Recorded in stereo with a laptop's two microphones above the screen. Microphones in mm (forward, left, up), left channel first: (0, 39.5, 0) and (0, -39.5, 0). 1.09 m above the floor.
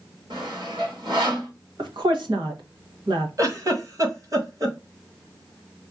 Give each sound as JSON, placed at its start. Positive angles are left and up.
{"t": 0.3, "sound": "sawing", "side_deg": -80, "distance_m": 2.5}
{"t": 1.8, "sound": "a woman speaking", "side_deg": -75, "distance_m": 1.3}
{"t": 3.4, "sound": "a giggle", "side_deg": -45, "distance_m": 1.2}